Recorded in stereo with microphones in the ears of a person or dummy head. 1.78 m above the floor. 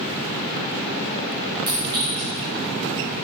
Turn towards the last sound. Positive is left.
turn(degrees=-20)  # may be behind; listen again after turning